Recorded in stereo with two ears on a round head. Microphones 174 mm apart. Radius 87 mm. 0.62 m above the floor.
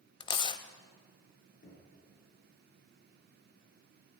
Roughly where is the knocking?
Left.